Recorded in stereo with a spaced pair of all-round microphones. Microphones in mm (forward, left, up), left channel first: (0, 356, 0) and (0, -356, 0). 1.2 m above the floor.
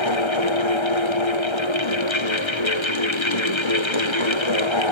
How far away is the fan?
About 0.9 m.